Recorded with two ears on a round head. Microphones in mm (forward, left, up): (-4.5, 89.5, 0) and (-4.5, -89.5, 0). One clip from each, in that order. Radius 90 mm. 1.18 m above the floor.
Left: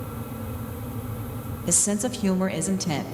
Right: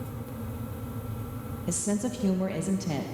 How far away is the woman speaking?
About 1.4 m.